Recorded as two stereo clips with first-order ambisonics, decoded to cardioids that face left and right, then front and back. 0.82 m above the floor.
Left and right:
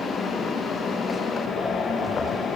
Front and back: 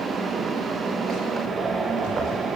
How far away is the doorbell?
I don't hear a doorbell.